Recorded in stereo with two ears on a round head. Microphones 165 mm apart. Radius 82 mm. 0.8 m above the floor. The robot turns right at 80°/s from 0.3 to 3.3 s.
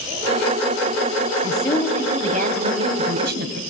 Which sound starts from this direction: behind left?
A woman speaking, at 1.4 s.